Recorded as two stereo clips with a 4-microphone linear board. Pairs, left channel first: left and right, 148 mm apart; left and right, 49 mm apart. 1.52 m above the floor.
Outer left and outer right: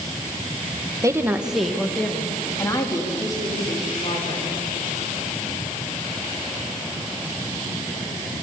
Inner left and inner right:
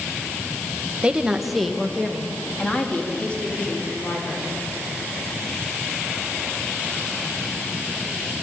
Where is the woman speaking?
20° right (ahead or behind), 1.7 m; by 4.6 s 30° left (ahead or behind), 6 m.